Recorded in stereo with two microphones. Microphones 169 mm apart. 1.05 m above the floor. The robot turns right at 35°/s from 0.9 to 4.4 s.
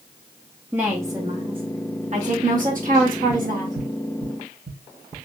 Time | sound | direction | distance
0.7 | a woman speaking | 165° right | 1.3 m
3.3 | tapping | 50° right (ahead or behind) | 2 m